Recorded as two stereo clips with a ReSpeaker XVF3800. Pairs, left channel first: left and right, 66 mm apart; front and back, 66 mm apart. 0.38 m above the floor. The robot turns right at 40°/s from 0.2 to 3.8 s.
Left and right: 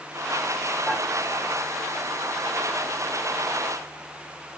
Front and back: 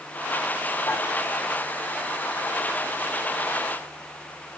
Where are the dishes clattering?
15° right, 5 m; by 1.0 s 10° right, 5 m.